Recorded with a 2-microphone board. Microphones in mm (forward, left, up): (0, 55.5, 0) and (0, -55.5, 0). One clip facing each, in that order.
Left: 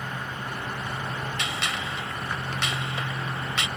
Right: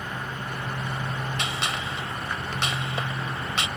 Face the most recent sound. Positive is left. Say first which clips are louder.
# right 1 dB
turn(degrees=-30)  # may be behind; listen again after turning